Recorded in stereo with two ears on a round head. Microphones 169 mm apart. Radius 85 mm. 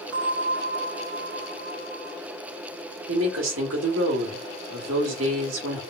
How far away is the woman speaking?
About 1.9 m.